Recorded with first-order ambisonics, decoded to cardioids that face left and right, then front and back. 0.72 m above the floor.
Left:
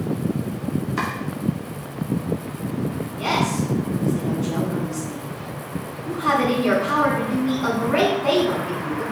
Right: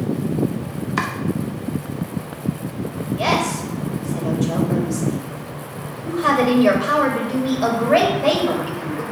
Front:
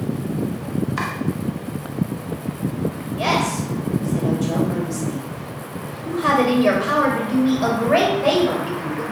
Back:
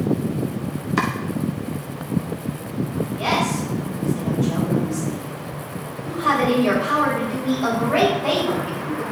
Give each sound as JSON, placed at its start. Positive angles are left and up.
{"t": 1.0, "sound": "chopping", "azimuth_deg": -125, "distance_m": 1.2}
{"t": 3.2, "sound": "a woman speaking", "azimuth_deg": -60, "distance_m": 3.5}